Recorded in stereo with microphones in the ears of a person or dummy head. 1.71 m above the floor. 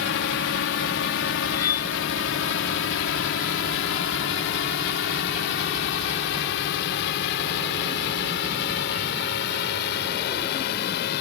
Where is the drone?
65° left (ahead or behind); by 11.2 s 75° left (ahead or behind).